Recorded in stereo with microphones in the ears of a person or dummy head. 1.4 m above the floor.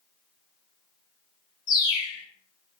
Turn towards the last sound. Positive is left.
turn(degrees=30)  # may be behind; listen again after turning